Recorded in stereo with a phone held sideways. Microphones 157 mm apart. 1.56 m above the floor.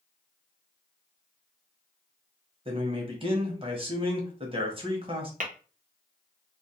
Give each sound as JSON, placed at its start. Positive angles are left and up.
{"t": 2.6, "sound": "a man speaking", "side_deg": -35, "distance_m": 0.9}
{"t": 5.4, "sound": "tapping", "side_deg": -55, "distance_m": 0.7}